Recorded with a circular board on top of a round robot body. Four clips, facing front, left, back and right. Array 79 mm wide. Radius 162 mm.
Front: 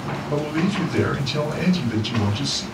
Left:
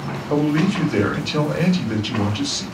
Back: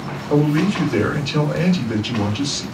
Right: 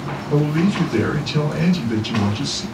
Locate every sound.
0.3 s a man speaking: 130° left, 1.6 m